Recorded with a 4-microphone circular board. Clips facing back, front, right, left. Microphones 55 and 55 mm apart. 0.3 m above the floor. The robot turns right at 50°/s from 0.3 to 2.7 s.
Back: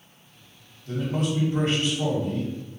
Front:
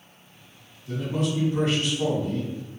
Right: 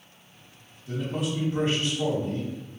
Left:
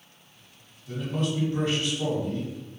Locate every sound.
0.9 s a man speaking: 175° right, 1.8 m; by 2.5 s 95° right, 1.8 m